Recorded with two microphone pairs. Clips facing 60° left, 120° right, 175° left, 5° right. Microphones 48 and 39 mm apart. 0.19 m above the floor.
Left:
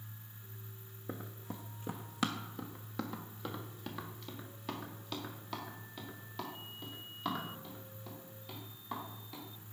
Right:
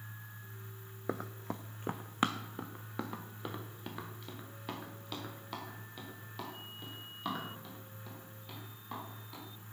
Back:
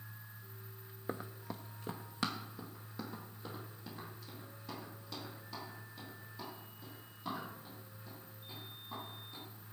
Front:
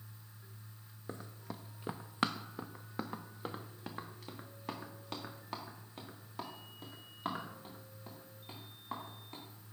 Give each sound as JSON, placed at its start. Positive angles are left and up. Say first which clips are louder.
{"t": 1.1, "sound": "running footsteps", "louder": "right 6 dB, back 3 dB", "azimuth_deg": -120, "distance_m": 0.5}